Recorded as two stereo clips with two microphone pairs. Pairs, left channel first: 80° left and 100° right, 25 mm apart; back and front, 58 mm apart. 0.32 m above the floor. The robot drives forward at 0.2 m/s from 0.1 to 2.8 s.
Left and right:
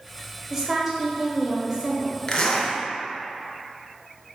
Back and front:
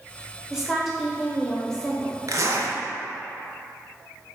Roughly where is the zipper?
Ahead left.